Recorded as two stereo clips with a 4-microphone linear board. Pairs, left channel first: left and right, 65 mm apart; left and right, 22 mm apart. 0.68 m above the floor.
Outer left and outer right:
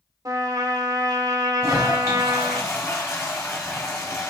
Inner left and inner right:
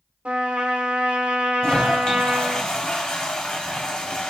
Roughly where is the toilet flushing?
Left.